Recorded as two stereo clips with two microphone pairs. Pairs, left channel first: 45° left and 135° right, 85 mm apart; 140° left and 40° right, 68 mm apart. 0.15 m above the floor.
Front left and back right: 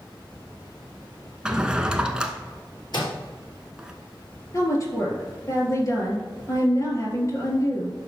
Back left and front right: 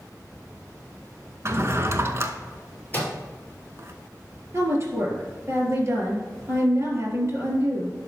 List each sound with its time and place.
1.4 s a drawer: 50° right, 0.8 m
2.9 s a microwave: 75° left, 3 m
4.5 s a woman speaking: straight ahead, 3 m